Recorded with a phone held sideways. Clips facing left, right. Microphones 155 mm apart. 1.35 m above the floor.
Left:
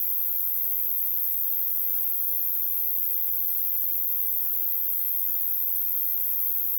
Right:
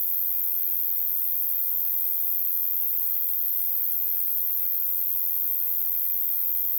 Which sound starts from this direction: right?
An insect, at 0.0 s.